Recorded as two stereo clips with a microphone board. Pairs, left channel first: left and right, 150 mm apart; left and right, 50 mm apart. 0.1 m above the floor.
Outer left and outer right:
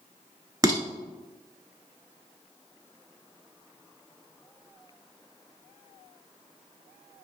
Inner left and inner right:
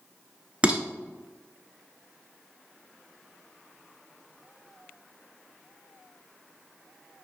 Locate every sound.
0.6 s dishes clattering: 25° right (ahead or behind), 0.8 m